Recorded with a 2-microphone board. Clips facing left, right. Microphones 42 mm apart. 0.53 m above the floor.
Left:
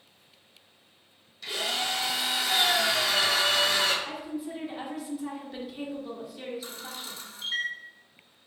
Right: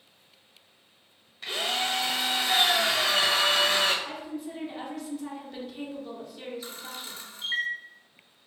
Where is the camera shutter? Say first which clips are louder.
Even; 35° right (ahead or behind), 1.3 m.